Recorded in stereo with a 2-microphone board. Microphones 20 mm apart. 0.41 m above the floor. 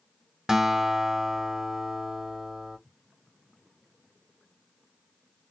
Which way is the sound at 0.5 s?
25° right (ahead or behind).